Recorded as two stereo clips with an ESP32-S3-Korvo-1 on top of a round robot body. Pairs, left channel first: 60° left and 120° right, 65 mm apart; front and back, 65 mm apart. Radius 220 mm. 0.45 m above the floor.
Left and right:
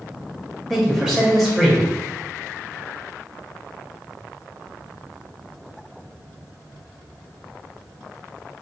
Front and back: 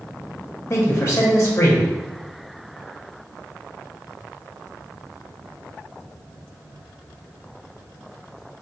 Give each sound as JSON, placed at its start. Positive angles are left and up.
{"t": 0.7, "sound": "a man speaking", "azimuth_deg": -40, "distance_m": 0.9}